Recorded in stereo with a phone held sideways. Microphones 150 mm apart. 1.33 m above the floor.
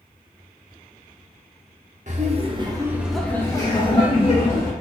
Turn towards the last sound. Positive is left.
turn(degrees=50)  # may be behind; listen again after turning